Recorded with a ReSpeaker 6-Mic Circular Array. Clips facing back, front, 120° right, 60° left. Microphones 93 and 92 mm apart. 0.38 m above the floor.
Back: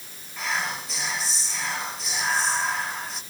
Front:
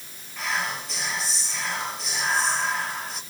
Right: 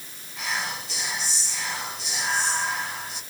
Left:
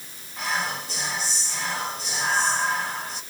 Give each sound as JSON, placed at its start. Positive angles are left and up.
{"t": 0.4, "sound": "whispering", "azimuth_deg": 90, "distance_m": 1.2}